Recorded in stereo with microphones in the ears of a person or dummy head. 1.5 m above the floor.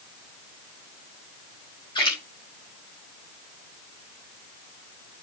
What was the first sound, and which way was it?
A splash, 30° left (ahead or behind).